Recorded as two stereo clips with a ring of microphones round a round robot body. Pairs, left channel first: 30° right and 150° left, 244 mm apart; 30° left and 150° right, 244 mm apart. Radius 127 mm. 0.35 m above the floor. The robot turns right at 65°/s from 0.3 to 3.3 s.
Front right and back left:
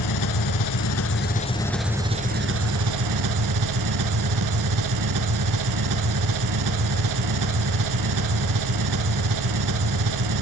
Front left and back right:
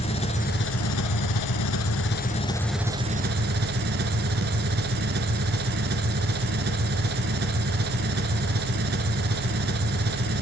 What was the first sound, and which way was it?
An engine running, 40° right.